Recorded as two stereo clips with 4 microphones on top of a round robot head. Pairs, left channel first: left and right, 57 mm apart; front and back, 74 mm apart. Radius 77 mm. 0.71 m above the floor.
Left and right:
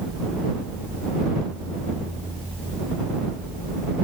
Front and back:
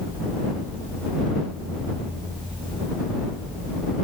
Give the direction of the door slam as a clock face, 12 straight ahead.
No door slam in this recording.